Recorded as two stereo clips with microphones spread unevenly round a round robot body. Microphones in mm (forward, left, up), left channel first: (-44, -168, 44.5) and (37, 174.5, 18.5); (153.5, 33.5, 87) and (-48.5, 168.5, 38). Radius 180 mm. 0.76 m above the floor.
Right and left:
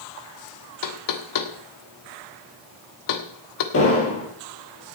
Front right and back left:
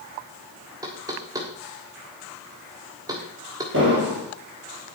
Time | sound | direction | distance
0.8 | knocking | 140° right | 1.5 m
3.7 | an explosion | 155° right | 4 m